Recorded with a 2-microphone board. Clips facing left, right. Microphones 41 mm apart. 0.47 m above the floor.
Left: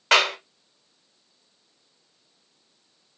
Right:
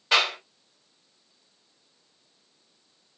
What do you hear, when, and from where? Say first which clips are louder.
0.1 s a clap: left 3 dB; 75° left (ahead or behind), 1.6 m